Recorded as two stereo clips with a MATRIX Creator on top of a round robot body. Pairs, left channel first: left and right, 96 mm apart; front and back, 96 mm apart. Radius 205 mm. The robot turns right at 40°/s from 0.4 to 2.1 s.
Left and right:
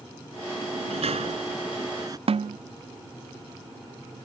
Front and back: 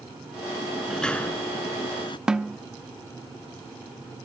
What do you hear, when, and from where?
0.6 s a sliding door: 100° right; by 2.2 s 40° right
2.3 s a snare drum: 95° right